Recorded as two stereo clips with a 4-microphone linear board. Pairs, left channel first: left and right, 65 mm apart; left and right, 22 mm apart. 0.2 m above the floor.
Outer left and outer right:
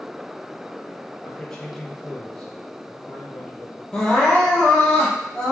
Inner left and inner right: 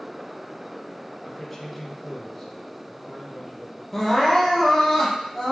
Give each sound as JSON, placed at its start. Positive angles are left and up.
{"t": 1.2, "sound": "a man speaking", "side_deg": 10, "distance_m": 3.5}
{"t": 3.9, "sound": "crying", "side_deg": 10, "distance_m": 4.0}